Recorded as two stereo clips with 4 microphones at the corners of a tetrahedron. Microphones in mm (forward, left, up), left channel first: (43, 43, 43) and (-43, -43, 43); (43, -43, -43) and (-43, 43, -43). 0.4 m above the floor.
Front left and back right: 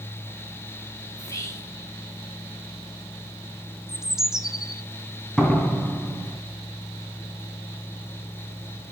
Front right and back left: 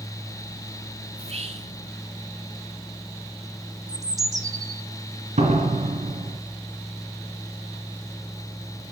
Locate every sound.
1.2 s whispering: 110° left, 4.5 m
3.9 s a bird: 140° left, 1.1 m
5.4 s a door slam: 130° left, 3 m